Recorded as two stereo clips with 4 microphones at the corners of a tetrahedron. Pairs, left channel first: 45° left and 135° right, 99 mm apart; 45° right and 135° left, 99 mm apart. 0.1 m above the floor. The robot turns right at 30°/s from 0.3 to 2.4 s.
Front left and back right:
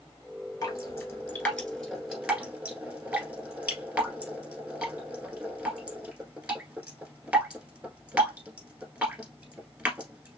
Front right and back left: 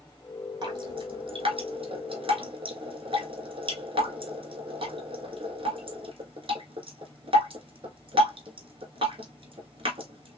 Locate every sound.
0.6 s dripping: 95° left, 1.8 m; by 10.4 s 145° left, 1.8 m